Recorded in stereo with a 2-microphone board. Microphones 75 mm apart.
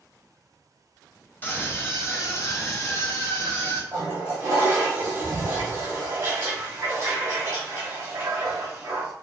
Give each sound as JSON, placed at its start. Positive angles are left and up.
{"t": 1.4, "sound": "a scream", "side_deg": 25, "distance_m": 1.0}
{"t": 3.9, "sound": "a toilet flushing", "side_deg": -40, "distance_m": 1.9}